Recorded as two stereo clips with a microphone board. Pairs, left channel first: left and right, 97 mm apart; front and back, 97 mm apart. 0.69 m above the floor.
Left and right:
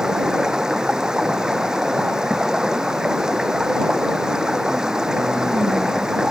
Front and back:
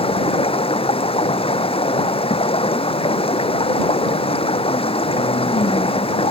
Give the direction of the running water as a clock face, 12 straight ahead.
12 o'clock.